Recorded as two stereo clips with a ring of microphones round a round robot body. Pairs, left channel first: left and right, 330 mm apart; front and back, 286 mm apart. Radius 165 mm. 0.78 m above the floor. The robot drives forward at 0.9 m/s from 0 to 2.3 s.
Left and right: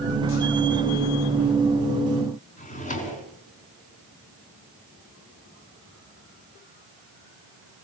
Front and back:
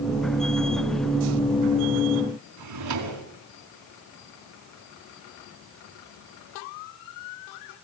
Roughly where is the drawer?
Behind.